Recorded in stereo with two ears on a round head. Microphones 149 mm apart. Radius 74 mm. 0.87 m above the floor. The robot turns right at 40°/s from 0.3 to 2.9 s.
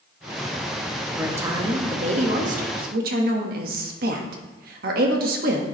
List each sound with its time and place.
1.1 s a woman speaking: 170° right, 1.5 m; by 5.6 s 100° right, 1.5 m